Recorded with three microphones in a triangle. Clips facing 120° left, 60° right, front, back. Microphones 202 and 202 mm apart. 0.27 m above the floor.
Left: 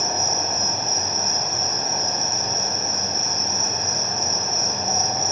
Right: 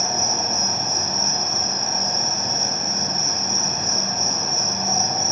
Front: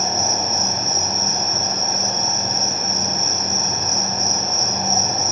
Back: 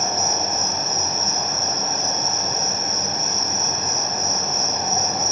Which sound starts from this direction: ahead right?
An insect, at 0.0 s.